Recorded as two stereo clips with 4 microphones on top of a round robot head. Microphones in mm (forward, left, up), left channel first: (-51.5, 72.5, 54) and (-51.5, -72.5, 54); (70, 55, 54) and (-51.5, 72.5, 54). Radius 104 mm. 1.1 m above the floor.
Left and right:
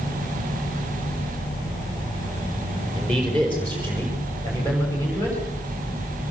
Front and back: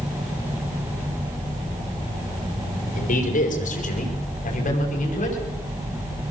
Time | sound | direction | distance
3.0 | a man speaking | straight ahead | 3.5 m